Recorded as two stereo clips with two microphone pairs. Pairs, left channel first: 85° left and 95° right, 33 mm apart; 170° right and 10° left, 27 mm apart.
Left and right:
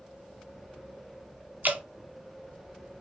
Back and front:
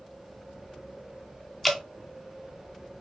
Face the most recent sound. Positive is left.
turn(degrees=-90)